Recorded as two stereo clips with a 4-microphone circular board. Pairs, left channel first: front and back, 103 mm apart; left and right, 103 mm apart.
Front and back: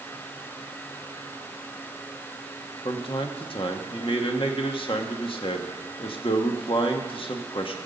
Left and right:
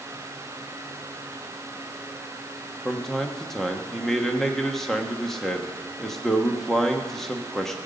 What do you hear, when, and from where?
2.9 s a man speaking: 5° left, 1.1 m